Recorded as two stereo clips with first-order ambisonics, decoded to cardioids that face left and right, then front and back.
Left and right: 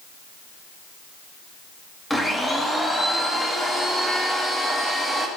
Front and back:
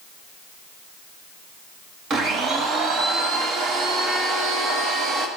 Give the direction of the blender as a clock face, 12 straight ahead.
6 o'clock.